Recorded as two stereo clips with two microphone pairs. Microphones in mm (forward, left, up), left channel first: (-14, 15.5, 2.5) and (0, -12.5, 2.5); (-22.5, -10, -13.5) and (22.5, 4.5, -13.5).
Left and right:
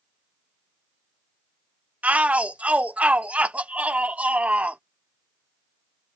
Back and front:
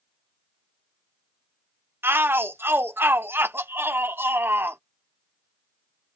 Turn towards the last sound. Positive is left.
turn(degrees=-20)